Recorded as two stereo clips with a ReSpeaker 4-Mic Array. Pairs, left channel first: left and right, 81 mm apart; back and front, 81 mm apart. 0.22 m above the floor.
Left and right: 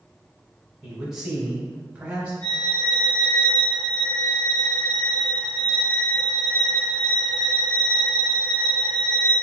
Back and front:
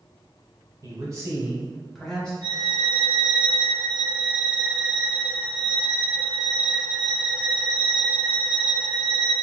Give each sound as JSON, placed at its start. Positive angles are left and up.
{"t": 0.8, "sound": "a man speaking", "azimuth_deg": -5, "distance_m": 1.7}
{"t": 2.4, "sound": "a violin", "azimuth_deg": 30, "distance_m": 1.7}